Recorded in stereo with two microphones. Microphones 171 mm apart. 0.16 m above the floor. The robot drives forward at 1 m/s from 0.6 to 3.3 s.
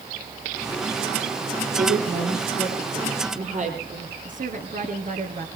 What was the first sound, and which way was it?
A woman speaking, 60° right (ahead or behind).